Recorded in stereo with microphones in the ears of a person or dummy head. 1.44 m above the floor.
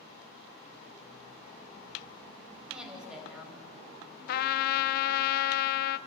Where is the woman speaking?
5° right (ahead or behind), 6 m.